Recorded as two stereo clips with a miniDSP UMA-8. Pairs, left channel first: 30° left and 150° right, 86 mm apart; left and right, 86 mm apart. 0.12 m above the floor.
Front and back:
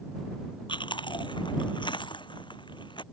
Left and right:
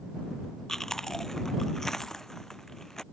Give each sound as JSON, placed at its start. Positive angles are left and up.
{"t": 0.7, "sound": "chewing", "azimuth_deg": 5}